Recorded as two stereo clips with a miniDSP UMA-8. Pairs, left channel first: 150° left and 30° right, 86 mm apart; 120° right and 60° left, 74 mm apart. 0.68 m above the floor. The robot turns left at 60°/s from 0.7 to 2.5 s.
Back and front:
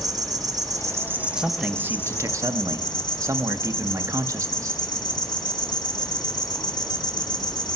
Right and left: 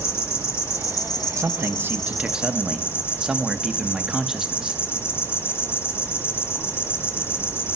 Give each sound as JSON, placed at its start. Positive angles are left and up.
{"t": 0.0, "sound": "an insect", "azimuth_deg": -70, "distance_m": 1.1}
{"t": 1.4, "sound": "a man speaking", "azimuth_deg": 50, "distance_m": 0.6}